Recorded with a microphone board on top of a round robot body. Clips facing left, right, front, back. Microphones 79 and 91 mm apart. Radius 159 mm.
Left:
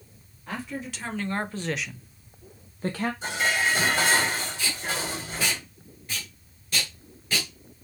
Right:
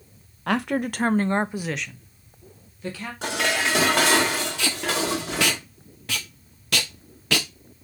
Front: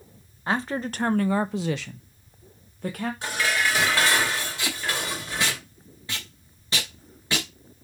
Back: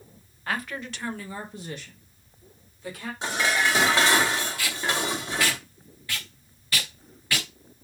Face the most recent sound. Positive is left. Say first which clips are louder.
# right 5 dB, back 2 dB
turn(degrees=-70)